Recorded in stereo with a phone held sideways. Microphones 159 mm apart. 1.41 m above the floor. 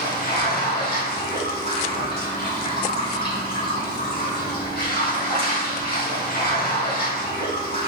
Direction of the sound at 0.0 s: 75° left (ahead or behind).